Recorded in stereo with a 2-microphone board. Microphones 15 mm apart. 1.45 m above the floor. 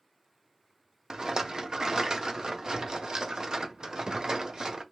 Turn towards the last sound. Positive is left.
turn(degrees=-50)  # may be behind; listen again after turning